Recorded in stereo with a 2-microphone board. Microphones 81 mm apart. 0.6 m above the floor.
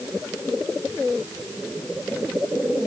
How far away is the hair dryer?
I don't hear a hair dryer.